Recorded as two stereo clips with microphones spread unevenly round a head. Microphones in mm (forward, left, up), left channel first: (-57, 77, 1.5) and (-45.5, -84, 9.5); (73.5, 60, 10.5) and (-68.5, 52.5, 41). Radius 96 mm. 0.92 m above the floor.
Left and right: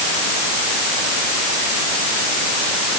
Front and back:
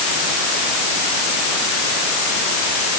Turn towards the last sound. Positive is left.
No sound to turn to.